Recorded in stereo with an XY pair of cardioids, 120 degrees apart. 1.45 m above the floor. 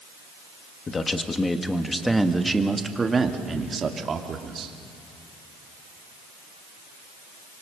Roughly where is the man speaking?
Ahead left.